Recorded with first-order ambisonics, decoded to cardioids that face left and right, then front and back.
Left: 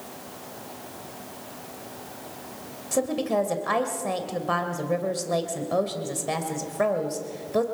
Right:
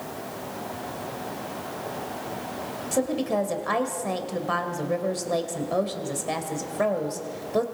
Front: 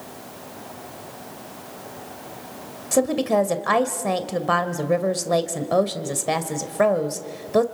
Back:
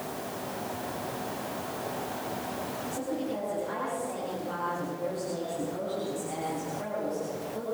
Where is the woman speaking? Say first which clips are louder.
Left 1 dB, front 17 dB; straight ahead, 2 m.